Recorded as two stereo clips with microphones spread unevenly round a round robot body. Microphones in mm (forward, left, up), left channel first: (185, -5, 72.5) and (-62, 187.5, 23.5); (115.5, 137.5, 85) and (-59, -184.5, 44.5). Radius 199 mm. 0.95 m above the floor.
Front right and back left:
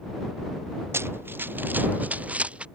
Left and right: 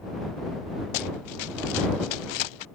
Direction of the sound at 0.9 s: 60° left.